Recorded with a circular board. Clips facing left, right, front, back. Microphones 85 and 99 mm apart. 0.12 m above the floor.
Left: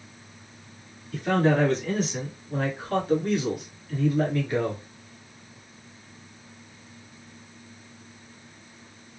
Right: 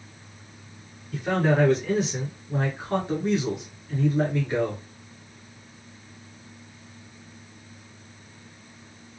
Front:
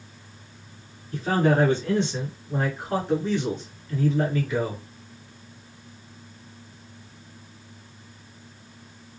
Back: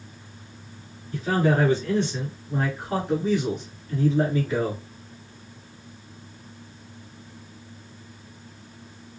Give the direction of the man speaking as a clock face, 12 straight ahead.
1 o'clock.